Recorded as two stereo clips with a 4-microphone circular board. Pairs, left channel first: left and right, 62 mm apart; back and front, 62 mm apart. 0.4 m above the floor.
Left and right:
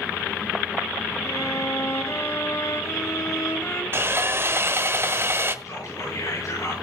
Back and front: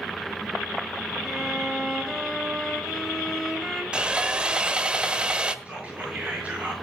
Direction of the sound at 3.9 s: 65° right.